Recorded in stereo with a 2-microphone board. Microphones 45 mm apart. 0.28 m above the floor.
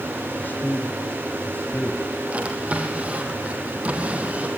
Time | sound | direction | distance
0.3 | a man speaking | 45° left (ahead or behind) | 1.9 m
2.3 | a drawer | 30° right (ahead or behind) | 3.5 m